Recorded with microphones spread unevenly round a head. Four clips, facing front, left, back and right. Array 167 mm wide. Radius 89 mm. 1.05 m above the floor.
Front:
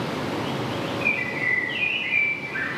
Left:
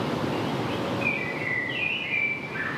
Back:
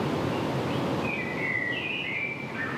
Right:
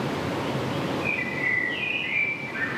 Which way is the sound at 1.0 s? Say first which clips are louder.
Right 1 dB, front 2 dB; 15° right.